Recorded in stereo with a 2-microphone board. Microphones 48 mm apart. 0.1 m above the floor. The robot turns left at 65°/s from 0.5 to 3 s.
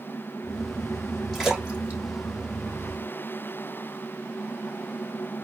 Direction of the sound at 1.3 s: 5° left (ahead or behind).